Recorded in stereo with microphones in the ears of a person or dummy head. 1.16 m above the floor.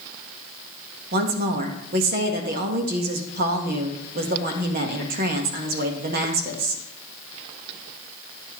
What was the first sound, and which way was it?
A woman speaking, 45° right (ahead or behind).